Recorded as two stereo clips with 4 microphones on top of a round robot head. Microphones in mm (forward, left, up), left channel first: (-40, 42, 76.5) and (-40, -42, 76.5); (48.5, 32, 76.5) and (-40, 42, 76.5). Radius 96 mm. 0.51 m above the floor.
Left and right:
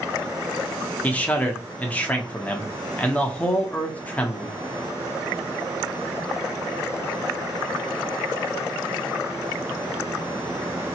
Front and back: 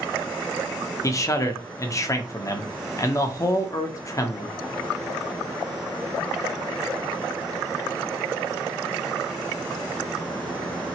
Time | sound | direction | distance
1.0 | a man speaking | 25° left | 0.9 m